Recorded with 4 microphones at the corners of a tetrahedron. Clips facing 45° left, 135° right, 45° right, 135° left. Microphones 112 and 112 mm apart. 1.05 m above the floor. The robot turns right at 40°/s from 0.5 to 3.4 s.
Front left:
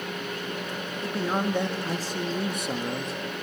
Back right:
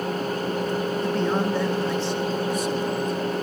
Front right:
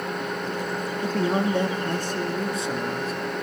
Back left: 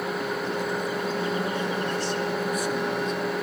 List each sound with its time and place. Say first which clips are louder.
1.0 s a man speaking: back right 1 dB, front right 4 dB; 45° right, 2 m; by 3.1 s 40° left, 2 m